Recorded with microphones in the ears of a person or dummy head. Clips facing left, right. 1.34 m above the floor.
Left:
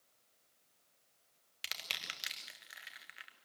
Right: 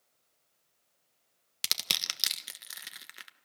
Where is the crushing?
50° right (ahead or behind), 1.3 m.